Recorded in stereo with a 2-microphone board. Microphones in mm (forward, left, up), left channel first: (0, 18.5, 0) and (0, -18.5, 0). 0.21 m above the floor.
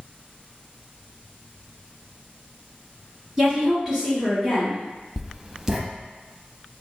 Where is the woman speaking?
15° right (ahead or behind), 1.4 m.